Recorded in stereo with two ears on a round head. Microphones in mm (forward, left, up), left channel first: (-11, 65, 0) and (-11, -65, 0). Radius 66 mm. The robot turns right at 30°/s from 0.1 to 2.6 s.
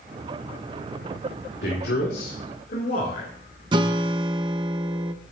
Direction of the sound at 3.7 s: 30° right (ahead or behind).